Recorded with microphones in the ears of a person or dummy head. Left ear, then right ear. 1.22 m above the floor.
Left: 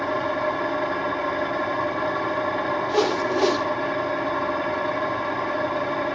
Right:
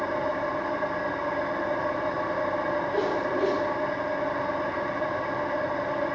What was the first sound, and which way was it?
An engine running, 35° left (ahead or behind).